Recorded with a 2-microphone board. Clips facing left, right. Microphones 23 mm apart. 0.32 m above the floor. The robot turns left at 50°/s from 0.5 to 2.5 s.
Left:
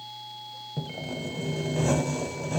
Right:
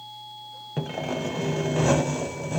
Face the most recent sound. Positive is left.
turn(degrees=180)